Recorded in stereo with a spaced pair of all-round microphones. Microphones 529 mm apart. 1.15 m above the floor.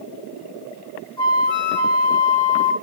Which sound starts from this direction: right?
A flute, at 1.2 s.